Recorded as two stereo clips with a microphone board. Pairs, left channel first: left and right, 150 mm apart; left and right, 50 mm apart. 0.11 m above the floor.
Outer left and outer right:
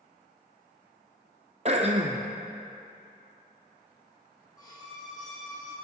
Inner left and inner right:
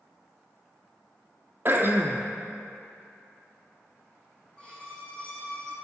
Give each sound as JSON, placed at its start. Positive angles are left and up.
{"t": 1.6, "sound": "throat clearing", "side_deg": -45, "distance_m": 0.9}
{"t": 4.6, "sound": "a violin", "side_deg": 25, "distance_m": 2.5}